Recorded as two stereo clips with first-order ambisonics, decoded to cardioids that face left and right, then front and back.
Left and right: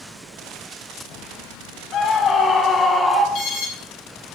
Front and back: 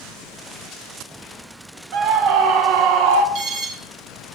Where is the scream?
140° left, 1.8 m; by 3.2 s straight behind, 1.3 m.